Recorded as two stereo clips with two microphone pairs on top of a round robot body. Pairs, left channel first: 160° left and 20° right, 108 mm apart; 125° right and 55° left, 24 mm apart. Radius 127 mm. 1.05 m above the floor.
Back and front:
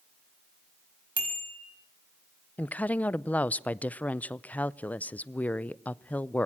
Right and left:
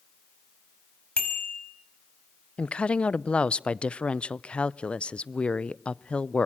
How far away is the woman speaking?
About 0.7 m.